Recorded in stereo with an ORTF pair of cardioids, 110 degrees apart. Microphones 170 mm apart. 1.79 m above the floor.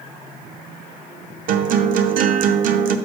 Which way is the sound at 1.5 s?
55° right.